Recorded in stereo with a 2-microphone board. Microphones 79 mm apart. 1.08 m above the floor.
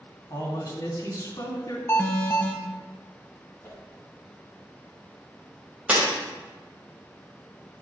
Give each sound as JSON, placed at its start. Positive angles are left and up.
{"t": 0.3, "sound": "a man speaking", "side_deg": 55, "distance_m": 3.0}
{"t": 1.9, "sound": "an alarm", "side_deg": 35, "distance_m": 0.9}
{"t": 3.6, "sound": "a whoosh", "side_deg": 30, "distance_m": 2.0}
{"t": 5.9, "sound": "breaking glass", "side_deg": -15, "distance_m": 2.5}